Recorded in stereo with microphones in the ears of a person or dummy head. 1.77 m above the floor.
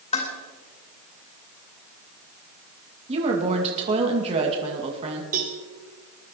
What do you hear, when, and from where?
0.1 s dishes clattering: 40° left (ahead or behind), 3 m
3.1 s a woman speaking: 35° right (ahead or behind), 2 m
5.3 s a cowbell: 45° right (ahead or behind), 1.5 m